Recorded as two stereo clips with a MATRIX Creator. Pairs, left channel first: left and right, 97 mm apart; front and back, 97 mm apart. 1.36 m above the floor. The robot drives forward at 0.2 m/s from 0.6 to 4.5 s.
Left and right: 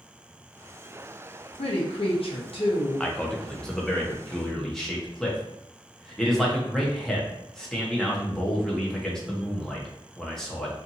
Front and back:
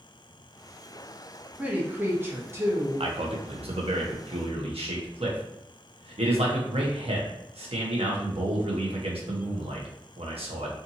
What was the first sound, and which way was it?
A woman speaking, 100° left.